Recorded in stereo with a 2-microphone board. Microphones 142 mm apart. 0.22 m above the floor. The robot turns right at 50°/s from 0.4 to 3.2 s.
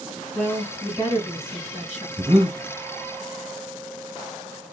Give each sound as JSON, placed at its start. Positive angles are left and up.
{"t": 0.3, "sound": "a woman speaking", "azimuth_deg": 10, "distance_m": 1.8}
{"t": 2.2, "sound": "breathing", "side_deg": -25, "distance_m": 1.4}